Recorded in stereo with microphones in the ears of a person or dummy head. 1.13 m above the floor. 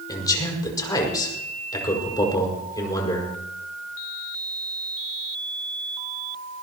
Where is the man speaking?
25° left (ahead or behind), 5 m.